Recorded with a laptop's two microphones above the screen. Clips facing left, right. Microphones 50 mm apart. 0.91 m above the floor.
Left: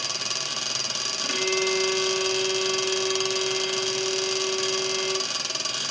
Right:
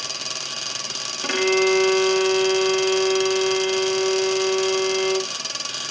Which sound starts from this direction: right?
A violin, at 1.2 s.